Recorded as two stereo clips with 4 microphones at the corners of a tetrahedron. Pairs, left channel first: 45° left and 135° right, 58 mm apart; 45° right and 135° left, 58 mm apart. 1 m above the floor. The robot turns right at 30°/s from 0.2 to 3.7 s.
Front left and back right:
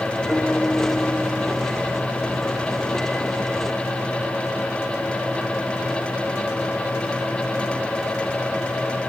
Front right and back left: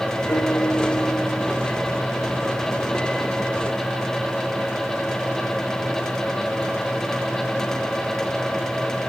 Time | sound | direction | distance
0.3 | a piano | 30° right | 1.0 m